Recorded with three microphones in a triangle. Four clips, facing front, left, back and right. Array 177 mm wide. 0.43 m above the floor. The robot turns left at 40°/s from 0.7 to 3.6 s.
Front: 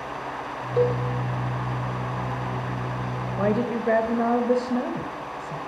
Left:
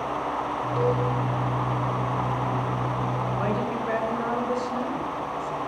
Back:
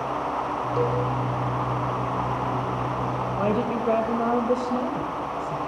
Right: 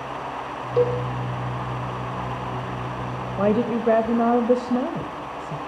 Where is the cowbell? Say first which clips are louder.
Right 4 dB, front 3 dB; 65° right, 6 m; by 1.0 s 75° right, 6 m.